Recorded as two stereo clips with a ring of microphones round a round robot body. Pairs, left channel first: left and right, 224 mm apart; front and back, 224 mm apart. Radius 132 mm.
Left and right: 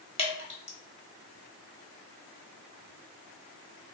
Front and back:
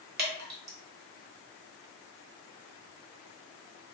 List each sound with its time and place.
0.2 s dripping: 150° left, 1.0 m